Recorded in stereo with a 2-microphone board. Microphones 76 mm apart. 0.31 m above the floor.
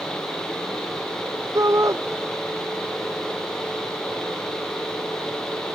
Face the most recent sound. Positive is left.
turn(degrees=-45)  # may be behind; listen again after turning